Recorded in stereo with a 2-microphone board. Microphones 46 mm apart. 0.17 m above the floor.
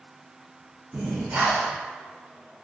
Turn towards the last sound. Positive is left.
turn(degrees=-25)  # may be behind; listen again after turning